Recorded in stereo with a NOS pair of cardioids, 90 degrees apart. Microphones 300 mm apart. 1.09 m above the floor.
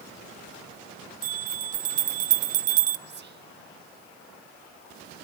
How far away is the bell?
About 0.8 m.